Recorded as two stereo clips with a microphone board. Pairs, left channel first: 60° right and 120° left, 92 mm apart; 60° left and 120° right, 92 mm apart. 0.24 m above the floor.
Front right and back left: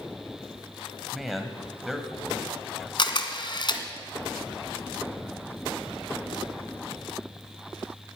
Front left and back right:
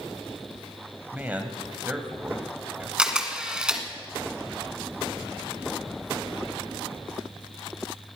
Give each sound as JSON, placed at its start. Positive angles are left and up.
{"t": 1.1, "sound": "a man speaking", "azimuth_deg": -155, "distance_m": 1.4}
{"t": 3.0, "sound": "a camera shutter", "azimuth_deg": -40, "distance_m": 1.2}